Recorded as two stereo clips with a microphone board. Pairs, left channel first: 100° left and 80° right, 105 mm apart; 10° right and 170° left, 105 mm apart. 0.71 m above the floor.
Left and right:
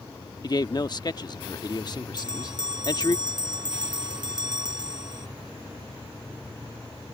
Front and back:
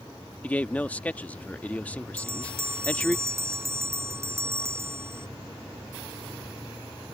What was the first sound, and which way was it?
A man speaking, 60° left.